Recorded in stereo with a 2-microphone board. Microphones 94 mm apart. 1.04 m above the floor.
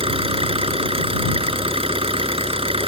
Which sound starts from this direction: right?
An engine running, at 0.0 s.